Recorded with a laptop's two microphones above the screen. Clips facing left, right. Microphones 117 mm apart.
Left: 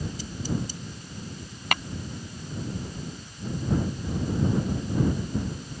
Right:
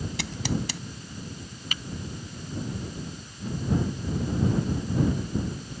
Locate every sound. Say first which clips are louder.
0.2 s scissors: right 2 dB; 80° right
1.7 s tapping: left 12 dB; 70° left (ahead or behind)